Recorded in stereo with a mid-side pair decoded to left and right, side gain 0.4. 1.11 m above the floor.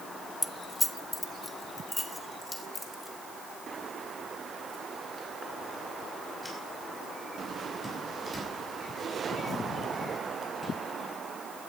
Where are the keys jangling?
15° left, 0.5 m; by 10.7 s 20° left, 9 m.